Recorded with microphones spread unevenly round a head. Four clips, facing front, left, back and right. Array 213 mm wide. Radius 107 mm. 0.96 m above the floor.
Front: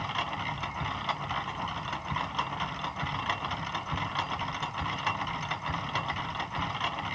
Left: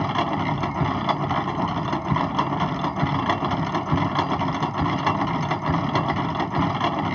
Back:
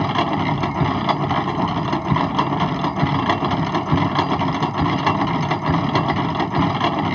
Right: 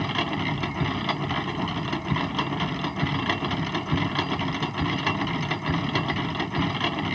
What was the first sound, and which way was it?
A machine running, 170° left.